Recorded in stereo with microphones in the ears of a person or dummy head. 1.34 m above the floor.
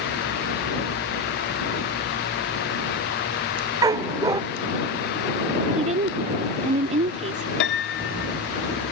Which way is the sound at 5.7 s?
35° right (ahead or behind).